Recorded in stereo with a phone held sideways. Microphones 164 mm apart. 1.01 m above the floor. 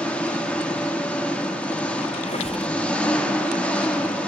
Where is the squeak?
40° left (ahead or behind), 2 m.